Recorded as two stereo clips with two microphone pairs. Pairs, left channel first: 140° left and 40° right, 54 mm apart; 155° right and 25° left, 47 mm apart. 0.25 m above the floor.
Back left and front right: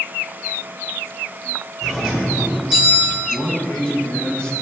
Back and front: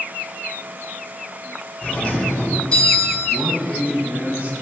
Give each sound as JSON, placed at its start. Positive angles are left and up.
{"t": 1.8, "sound": "a doorbell", "azimuth_deg": -120, "distance_m": 2.5}
{"t": 3.3, "sound": "a man speaking", "azimuth_deg": 75, "distance_m": 1.7}